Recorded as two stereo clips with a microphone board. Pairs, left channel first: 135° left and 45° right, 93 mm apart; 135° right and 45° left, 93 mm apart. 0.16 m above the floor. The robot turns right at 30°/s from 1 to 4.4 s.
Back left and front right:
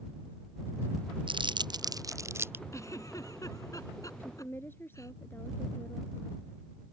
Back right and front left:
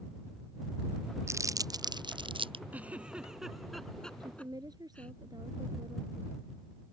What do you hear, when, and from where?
1.3 s crumpling: 15° right; by 2.6 s 25° left
2.7 s a giggle: 105° left; by 5.1 s 155° left
4.2 s a woman speaking: 70° left; by 6.3 s 75° left